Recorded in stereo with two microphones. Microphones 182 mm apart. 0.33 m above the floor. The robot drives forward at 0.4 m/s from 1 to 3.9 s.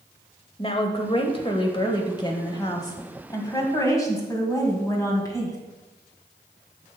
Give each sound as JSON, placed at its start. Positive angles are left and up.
{"t": 0.6, "sound": "a woman speaking", "side_deg": 30, "distance_m": 1.2}